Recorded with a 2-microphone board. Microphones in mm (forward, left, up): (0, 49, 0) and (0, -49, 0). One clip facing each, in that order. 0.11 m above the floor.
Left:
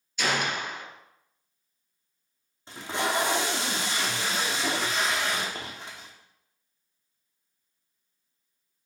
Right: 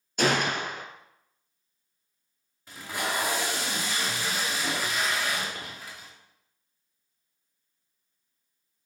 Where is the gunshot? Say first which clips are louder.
Right 3 dB; 50° right (ahead or behind), 0.9 m.